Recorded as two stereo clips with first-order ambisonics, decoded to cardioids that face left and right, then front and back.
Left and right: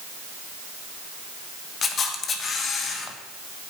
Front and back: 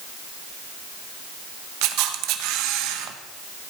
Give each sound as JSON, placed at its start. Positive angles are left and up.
{"t": 1.8, "sound": "a camera shutter", "azimuth_deg": 155, "distance_m": 1.3}